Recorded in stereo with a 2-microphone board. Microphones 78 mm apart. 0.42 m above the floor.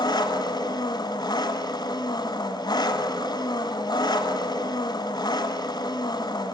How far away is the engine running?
About 1.4 m.